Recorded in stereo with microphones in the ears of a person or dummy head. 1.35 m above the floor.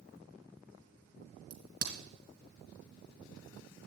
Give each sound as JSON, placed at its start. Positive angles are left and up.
{"t": 1.5, "sound": "a crack", "side_deg": -55, "distance_m": 2.0}